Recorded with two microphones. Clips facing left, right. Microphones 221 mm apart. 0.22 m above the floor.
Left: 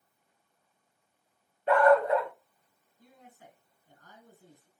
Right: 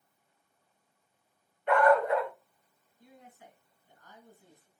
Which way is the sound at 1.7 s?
35° left (ahead or behind).